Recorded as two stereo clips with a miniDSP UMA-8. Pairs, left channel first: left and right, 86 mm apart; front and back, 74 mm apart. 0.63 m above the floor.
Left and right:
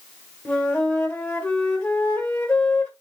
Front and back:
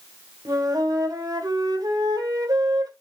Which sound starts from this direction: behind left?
A flute, at 0.5 s.